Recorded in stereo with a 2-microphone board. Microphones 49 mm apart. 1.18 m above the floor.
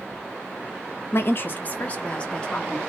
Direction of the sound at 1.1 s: 55° left (ahead or behind).